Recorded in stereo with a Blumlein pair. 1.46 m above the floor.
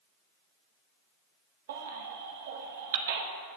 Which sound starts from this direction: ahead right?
A baby crying, at 1.7 s.